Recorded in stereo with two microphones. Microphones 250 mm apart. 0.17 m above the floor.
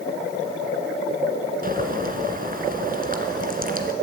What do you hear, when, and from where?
1.6 s boiling: 35° right (ahead or behind), 2 m